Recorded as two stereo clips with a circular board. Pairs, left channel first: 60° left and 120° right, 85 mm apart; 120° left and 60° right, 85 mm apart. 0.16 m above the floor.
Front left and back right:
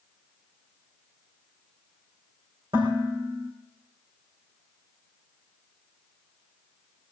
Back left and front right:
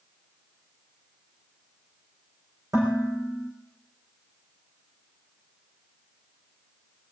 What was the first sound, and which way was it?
Dishes clattering, 105° right.